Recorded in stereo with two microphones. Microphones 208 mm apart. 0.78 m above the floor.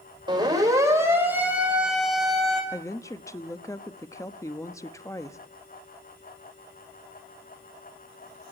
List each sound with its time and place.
0.3 s a siren: 20° right (ahead or behind), 4 m; by 2.6 s 5° left (ahead or behind), 5 m
2.7 s a woman speaking: 15° left (ahead or behind), 1.0 m